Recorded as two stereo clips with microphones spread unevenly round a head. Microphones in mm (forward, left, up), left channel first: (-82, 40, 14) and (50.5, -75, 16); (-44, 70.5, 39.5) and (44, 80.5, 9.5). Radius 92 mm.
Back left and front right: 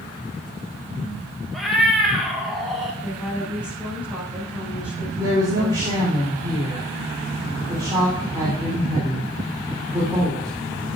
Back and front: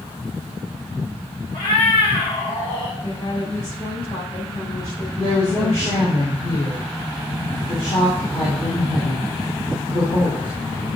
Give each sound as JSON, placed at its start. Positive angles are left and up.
{"t": 1.5, "sound": "a cat meowing", "azimuth_deg": -130, "distance_m": 1.9}
{"t": 3.0, "sound": "a woman speaking", "azimuth_deg": -125, "distance_m": 5.5}
{"t": 5.2, "sound": "a woman speaking", "azimuth_deg": -110, "distance_m": 4.0}